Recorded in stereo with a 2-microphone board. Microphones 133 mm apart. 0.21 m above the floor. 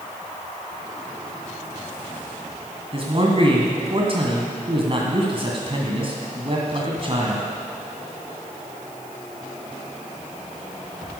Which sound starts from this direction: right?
A man speaking, at 2.9 s.